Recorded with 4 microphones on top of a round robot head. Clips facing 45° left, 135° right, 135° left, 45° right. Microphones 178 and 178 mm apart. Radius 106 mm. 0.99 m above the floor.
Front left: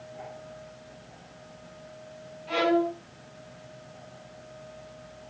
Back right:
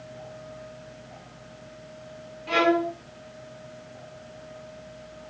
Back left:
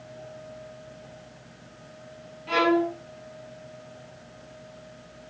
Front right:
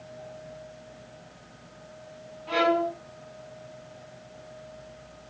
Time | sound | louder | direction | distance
2.5 | a violin | back right 1 dB, back left 2 dB | 160° right | 4 m